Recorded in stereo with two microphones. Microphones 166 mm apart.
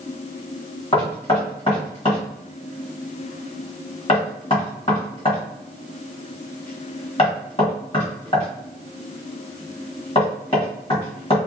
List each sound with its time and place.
0.9 s knocking: 35° left (ahead or behind), 1.5 m